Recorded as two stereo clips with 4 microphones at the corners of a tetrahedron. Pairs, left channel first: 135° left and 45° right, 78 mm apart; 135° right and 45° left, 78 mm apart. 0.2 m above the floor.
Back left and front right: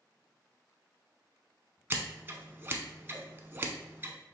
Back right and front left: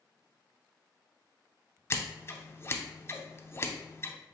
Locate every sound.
1.9 s scissors: 95° right, 0.5 m